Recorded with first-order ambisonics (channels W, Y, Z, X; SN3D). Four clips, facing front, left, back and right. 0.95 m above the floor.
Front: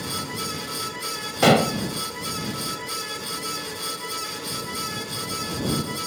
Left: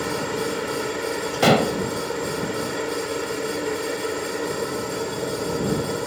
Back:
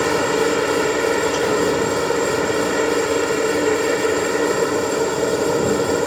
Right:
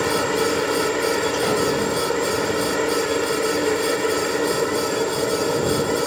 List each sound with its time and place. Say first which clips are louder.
0.0 s a helicopter: right 5 dB, back 13 dB; 160° right
1.4 s dishes clattering: left 7 dB, even; 40° left